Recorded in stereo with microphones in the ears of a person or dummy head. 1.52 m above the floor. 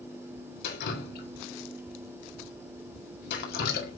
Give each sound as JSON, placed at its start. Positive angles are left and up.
{"t": 0.6, "sound": "dripping", "side_deg": 55, "distance_m": 1.9}